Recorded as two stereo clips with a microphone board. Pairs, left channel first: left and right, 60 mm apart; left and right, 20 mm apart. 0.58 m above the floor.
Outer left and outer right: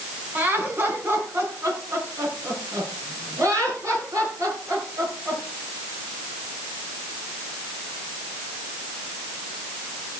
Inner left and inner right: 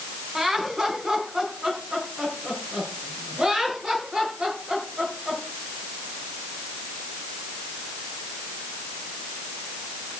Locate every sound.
0.3 s laughter: 30° right (ahead or behind), 4 m; by 5.4 s 60° right (ahead or behind), 9.5 m